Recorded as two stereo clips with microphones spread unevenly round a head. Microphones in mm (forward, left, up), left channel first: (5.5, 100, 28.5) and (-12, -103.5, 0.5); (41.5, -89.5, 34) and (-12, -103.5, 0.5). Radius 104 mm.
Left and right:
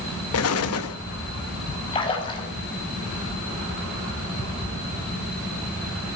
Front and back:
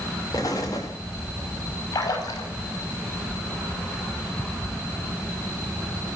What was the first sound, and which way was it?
An explosion, 85° left.